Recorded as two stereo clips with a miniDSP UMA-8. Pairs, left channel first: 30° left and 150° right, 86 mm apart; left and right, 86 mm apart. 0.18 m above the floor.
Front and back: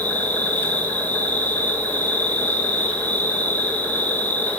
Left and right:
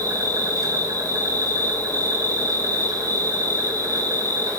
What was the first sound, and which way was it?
An insect, 40° right.